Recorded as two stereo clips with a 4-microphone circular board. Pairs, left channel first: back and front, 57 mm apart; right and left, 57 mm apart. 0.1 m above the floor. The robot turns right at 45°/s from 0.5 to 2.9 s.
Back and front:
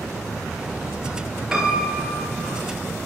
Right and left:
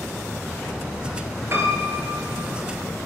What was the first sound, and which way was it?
A piano, 80° left.